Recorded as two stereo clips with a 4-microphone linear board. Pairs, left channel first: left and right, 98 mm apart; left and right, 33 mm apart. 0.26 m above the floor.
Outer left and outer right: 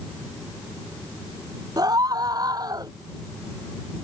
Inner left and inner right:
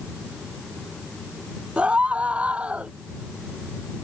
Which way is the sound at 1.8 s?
40° right (ahead or behind).